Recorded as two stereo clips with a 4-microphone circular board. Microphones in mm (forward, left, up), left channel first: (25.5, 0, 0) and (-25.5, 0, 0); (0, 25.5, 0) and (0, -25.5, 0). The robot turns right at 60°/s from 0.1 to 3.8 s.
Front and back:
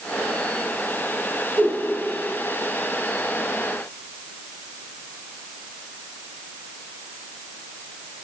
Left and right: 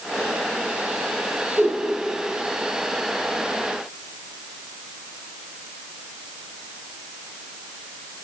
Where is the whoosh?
130° right, 4 m; by 1.8 s 115° right, 4 m.